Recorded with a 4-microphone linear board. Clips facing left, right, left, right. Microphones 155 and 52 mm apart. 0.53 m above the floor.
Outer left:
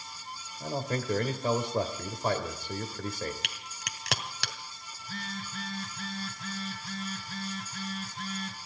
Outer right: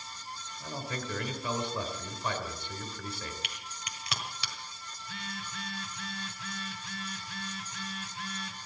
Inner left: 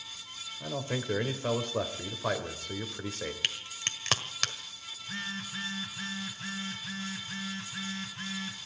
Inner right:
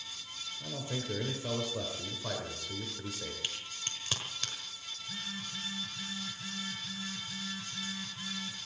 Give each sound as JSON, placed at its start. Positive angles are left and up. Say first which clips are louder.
{"t": 0.6, "sound": "a man speaking", "louder": "outer left 6 dB, inner left 5 dB", "side_deg": 45, "distance_m": 2.5}
{"t": 3.4, "sound": "a crack", "louder": "even, inner left 6 dB", "side_deg": 75, "distance_m": 1.4}
{"t": 5.0, "sound": "a phone buzzing", "louder": "outer left 3 dB, inner left 5 dB", "side_deg": 40, "distance_m": 3.0}